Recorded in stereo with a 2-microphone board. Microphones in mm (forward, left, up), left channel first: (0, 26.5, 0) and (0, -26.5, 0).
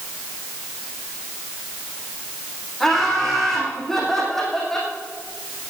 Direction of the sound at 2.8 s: 5° left (ahead or behind).